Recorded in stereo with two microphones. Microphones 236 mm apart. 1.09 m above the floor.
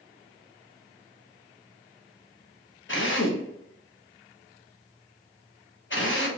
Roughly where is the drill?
Left.